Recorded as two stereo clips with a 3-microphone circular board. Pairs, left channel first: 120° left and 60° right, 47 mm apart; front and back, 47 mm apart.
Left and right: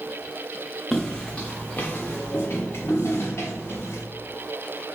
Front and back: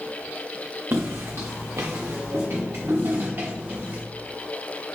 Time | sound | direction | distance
0.9 | footsteps | 155° right | 0.6 m